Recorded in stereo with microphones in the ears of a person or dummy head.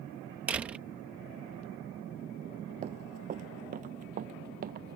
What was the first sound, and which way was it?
A door slam, 10° right (ahead or behind).